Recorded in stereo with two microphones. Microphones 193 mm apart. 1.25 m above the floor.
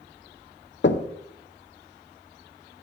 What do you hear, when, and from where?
0.8 s knocking: 65° left (ahead or behind), 0.6 m